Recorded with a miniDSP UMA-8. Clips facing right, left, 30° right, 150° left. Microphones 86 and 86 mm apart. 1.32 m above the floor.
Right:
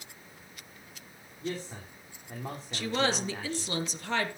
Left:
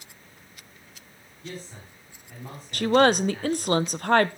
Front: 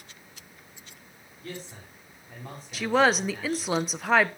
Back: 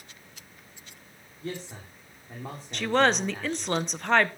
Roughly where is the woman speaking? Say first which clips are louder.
Left 11 dB, front 1 dB; ahead left.